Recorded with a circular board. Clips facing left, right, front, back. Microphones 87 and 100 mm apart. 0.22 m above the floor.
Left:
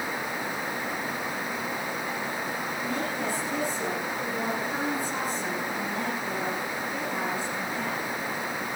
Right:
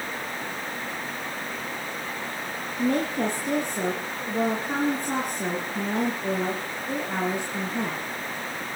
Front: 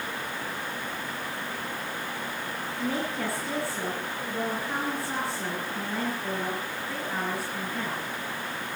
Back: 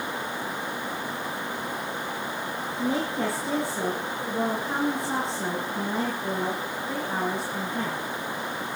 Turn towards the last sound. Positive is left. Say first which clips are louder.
# right 10 dB, back 4 dB
turn(degrees=-115)